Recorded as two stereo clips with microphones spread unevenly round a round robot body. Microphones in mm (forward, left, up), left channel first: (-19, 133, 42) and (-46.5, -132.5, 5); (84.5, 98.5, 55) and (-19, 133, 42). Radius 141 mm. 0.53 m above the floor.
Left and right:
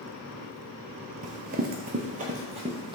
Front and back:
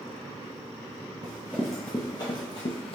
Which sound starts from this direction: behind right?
Running footsteps, at 1.2 s.